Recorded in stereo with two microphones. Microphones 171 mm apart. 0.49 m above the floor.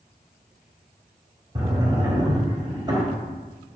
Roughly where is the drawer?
Right.